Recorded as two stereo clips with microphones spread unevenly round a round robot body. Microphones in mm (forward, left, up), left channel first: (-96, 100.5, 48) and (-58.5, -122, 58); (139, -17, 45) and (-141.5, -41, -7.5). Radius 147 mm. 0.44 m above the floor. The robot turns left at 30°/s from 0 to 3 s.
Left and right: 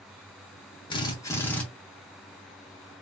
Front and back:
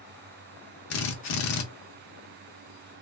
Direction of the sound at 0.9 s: 40° left.